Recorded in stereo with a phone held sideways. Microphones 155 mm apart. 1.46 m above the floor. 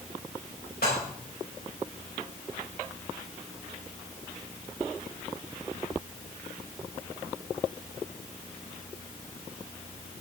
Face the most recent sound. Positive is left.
turn(degrees=80)